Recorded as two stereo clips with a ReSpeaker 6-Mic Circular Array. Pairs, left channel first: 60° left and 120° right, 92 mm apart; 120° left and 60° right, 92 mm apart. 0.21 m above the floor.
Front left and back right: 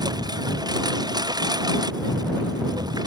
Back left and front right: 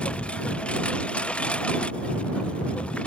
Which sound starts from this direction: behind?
A lawn mower, at 0.0 s.